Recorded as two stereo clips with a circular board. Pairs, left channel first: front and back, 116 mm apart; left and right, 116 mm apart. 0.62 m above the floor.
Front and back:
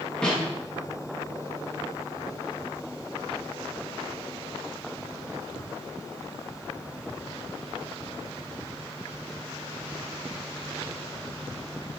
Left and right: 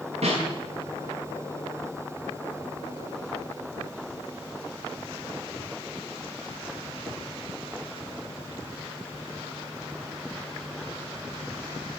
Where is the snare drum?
80° right, 5.5 m.